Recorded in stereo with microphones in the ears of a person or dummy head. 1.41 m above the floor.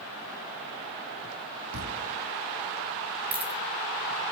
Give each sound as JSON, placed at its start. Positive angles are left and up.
{"t": 1.7, "sound": "a thud", "side_deg": -80, "distance_m": 5.5}
{"t": 3.3, "sound": "a dropped coin", "side_deg": -10, "distance_m": 5.5}